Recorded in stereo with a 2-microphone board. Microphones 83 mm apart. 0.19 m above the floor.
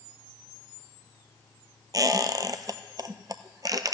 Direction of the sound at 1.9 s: 50° right (ahead or behind).